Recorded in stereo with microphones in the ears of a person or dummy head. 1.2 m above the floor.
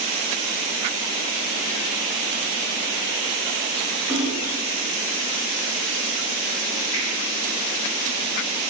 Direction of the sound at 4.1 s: 10° right (ahead or behind).